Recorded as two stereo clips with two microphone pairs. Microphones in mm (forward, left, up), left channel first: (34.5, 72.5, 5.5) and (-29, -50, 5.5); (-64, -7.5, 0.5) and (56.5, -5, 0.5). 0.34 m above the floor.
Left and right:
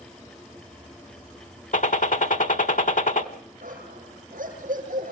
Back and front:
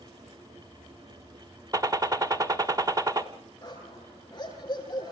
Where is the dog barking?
120° right, 6 m.